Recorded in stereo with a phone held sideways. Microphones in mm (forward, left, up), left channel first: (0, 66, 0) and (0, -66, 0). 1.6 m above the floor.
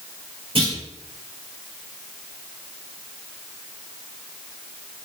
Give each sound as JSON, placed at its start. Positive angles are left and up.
{"t": 0.6, "sound": "a clunk", "side_deg": -45, "distance_m": 6.5}